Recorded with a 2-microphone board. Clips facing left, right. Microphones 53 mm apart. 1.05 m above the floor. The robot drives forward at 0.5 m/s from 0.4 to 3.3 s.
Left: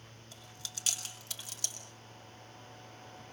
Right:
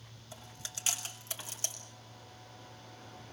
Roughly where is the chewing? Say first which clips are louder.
Right 2 dB; right.